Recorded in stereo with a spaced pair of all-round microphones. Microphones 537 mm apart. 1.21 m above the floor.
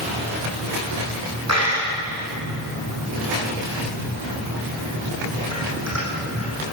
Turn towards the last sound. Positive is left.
turn(degrees=-30)  # may be behind; listen again after turning